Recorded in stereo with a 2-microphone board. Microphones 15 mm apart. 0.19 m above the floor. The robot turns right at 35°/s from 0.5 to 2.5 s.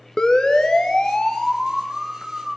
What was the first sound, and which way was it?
A siren, 55° left (ahead or behind).